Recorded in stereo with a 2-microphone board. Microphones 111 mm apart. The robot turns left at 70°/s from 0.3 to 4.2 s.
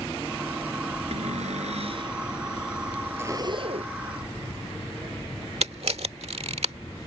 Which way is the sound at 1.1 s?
70° right.